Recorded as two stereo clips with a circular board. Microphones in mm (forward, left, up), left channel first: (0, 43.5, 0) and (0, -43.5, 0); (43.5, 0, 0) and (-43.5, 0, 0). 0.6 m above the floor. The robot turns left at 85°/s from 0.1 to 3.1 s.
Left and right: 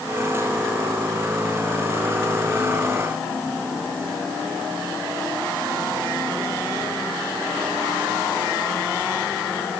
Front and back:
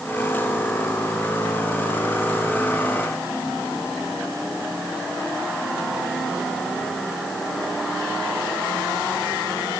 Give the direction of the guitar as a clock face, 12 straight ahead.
No guitar in this recording.